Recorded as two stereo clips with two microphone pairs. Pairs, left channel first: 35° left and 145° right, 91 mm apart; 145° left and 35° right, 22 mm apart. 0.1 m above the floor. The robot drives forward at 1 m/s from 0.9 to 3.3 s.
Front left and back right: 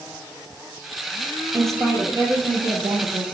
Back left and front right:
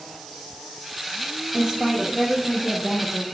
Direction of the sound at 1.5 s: 90° right.